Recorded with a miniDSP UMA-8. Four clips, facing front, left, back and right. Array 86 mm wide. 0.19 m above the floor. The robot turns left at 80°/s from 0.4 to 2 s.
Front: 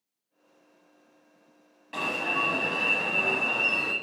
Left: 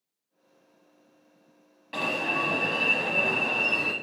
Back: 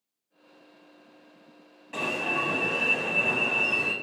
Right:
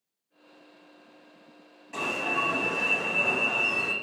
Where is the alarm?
70° left, 0.7 m; by 3.9 s 65° left, 0.7 m.